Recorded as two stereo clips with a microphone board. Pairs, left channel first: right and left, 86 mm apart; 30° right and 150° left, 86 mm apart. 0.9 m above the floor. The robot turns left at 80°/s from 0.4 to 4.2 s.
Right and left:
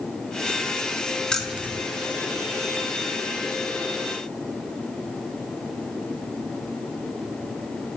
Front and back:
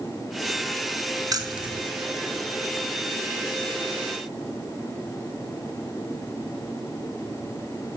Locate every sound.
1.3 s keys jangling: 170° right, 0.6 m; by 1.8 s 150° left, 0.6 m